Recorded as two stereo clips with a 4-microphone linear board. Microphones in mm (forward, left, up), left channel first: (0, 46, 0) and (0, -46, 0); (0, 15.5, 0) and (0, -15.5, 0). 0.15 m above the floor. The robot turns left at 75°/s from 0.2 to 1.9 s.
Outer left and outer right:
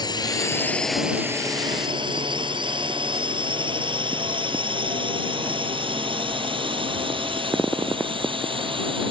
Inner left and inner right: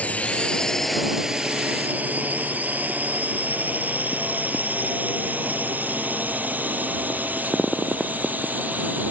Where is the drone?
50° left (ahead or behind); by 9.1 s 70° right (ahead or behind).